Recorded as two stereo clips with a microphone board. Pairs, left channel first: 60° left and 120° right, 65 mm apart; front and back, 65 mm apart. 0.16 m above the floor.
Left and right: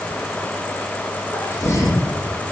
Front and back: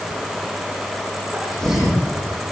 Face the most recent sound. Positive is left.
turn(degrees=80)